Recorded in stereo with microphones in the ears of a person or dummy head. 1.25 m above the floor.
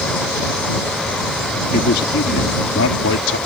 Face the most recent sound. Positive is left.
turn(degrees=75)  # may be behind; listen again after turning